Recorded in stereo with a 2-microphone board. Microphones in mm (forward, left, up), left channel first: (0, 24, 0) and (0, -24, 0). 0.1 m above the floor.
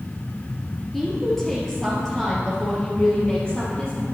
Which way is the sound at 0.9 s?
Centre (ahead or behind).